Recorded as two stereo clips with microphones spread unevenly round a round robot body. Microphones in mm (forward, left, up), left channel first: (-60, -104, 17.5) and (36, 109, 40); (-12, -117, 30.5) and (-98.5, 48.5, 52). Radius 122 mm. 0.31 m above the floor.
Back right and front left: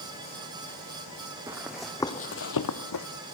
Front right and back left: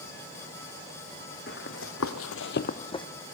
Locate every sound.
1.5 s running footsteps: 10° right, 1.5 m; by 3.1 s 135° right, 1.2 m